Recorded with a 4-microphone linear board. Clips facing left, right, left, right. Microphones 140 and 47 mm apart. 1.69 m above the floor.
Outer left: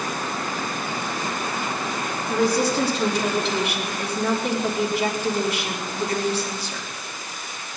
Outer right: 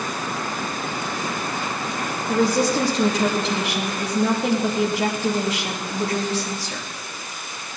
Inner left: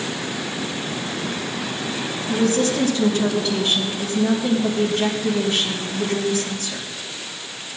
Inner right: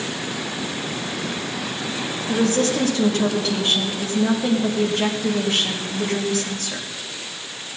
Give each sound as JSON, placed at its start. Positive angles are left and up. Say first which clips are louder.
{"t": 2.3, "sound": "a woman speaking", "louder": "outer right 2 dB, even", "side_deg": -80, "distance_m": 3.0}